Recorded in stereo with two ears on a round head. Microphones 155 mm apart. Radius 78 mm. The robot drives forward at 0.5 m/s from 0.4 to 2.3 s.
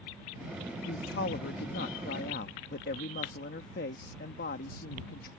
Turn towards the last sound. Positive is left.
turn(degrees=55)  # may be behind; listen again after turning